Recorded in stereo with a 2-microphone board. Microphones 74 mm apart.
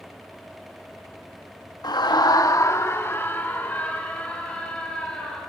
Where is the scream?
70° left (ahead or behind), 1.1 m; by 5.4 s 15° left (ahead or behind), 5.5 m.